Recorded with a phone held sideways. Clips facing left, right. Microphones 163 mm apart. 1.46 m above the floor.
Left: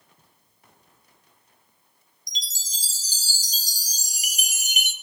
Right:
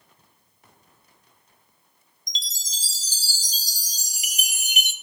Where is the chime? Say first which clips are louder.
Right 1 dB; 20° right (ahead or behind), 1.4 m.